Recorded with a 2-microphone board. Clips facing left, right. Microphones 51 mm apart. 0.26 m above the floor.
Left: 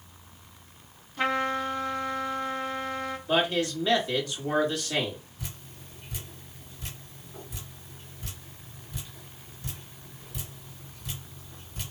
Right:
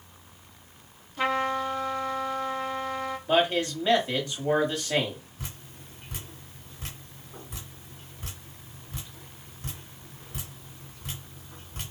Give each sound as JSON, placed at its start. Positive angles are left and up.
{"t": 1.2, "sound": "a trumpet", "side_deg": 0, "distance_m": 1.2}
{"t": 3.3, "sound": "a man speaking", "side_deg": -25, "distance_m": 1.5}
{"t": 5.4, "sound": "dripping", "side_deg": -60, "distance_m": 2.0}